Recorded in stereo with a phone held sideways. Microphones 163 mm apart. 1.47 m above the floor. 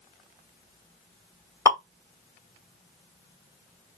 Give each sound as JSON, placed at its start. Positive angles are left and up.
{"t": 1.6, "sound": "dripping", "side_deg": 20, "distance_m": 0.9}